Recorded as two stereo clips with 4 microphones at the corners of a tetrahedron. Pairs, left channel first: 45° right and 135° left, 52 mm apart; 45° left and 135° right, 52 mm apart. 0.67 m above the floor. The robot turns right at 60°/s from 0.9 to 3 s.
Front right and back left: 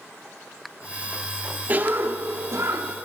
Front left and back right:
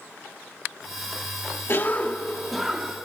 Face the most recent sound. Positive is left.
turn(degrees=160)